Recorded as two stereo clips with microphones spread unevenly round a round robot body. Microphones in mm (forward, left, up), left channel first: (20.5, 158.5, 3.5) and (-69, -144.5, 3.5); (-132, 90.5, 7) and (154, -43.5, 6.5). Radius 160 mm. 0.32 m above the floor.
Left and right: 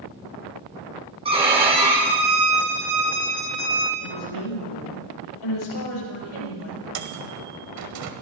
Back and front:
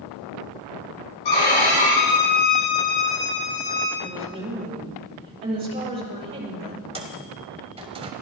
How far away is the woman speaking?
About 7 m.